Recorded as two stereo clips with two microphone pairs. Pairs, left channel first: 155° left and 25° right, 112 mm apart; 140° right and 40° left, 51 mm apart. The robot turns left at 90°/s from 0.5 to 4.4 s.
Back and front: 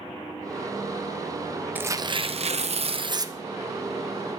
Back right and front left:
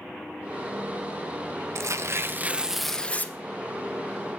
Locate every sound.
1.8 s tearing paper: 50° left, 0.8 m; by 3.3 s 95° right, 0.8 m